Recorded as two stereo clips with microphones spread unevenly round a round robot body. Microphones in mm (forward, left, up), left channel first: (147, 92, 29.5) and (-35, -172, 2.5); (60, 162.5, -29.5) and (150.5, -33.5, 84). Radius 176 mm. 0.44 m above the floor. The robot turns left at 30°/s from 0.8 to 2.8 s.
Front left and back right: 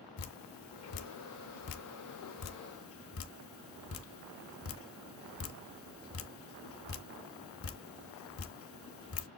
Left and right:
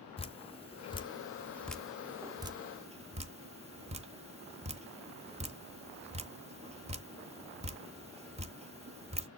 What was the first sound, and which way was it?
Dripping, 70° left.